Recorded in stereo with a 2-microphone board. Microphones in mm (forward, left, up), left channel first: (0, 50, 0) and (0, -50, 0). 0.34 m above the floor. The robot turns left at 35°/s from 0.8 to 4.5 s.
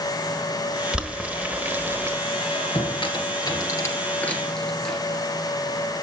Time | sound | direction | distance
0.9 | boiling | 5° right (ahead or behind) | 1.1 m
2.3 | a squeak | 80° left | 2.5 m